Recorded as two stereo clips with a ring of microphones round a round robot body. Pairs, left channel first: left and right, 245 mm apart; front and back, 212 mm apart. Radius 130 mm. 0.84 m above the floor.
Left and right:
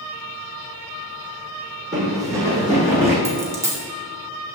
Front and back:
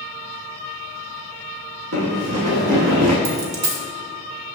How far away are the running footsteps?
About 1.9 m.